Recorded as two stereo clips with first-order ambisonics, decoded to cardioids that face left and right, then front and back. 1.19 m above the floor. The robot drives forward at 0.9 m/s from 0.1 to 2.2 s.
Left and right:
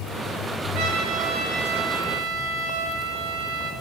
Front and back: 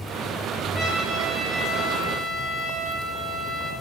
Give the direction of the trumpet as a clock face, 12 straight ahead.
2 o'clock.